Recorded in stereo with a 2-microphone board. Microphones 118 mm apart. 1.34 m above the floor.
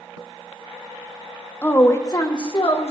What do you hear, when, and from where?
1.6 s a woman speaking: 15° left (ahead or behind), 0.7 m; by 2.9 s 55° left (ahead or behind), 1.3 m